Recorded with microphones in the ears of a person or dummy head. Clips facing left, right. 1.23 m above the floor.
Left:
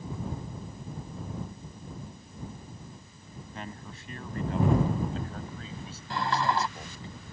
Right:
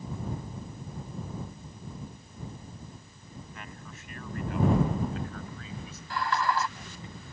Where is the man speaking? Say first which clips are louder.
Left 4 dB; 30° left (ahead or behind).